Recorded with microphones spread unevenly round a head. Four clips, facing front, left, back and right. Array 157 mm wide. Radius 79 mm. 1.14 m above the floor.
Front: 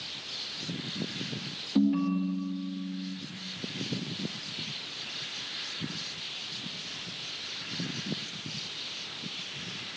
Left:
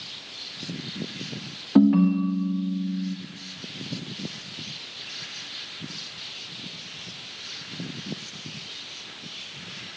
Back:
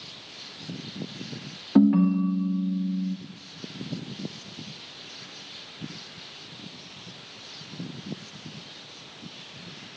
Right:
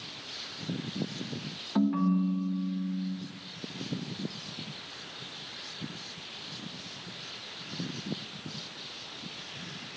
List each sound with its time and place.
1.8 s a ringtone: 125° left, 0.8 m